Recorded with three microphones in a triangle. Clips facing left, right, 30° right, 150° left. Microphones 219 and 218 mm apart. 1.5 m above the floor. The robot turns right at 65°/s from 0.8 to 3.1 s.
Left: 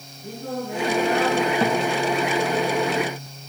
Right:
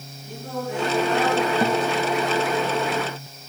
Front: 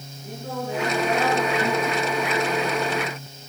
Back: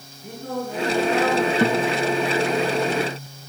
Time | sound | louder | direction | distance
0.2 | singing | left 1 dB, back 2 dB | 120° left | 8 m
1.6 | a guitar | even, back 4 dB | 175° right | 1.3 m